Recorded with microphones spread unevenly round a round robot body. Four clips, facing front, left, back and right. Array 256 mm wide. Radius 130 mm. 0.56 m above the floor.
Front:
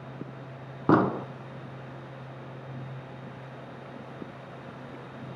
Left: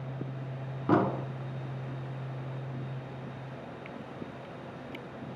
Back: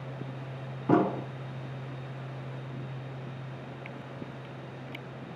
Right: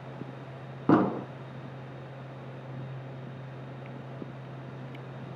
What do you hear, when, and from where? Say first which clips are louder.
0.9 s an explosion: right 3 dB, front 2 dB; 50° right, 1.1 m